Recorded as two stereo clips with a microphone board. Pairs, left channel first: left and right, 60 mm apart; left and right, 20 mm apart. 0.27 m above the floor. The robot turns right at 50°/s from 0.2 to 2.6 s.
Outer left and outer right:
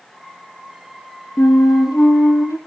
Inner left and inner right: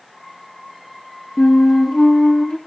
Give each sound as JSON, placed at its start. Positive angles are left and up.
{"t": 1.4, "sound": "a flute", "azimuth_deg": 65, "distance_m": 2.5}